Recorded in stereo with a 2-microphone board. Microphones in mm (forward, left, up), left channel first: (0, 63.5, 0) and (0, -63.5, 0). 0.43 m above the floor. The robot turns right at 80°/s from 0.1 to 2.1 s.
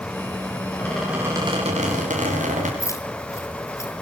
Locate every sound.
0.8 s a squeak: 160° left, 8 m; by 2.7 s 90° right, 8 m
2.8 s keys jangling: 25° left (ahead or behind), 5 m